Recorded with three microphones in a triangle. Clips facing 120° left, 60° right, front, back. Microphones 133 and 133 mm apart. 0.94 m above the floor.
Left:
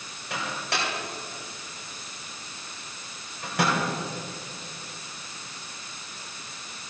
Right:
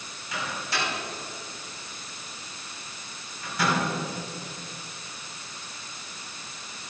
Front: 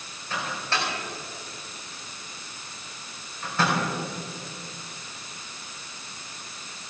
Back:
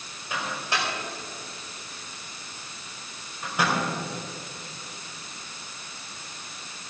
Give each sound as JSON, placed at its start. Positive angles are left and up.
{"t": 0.3, "sound": "a microwave", "azimuth_deg": 105, "distance_m": 4.5}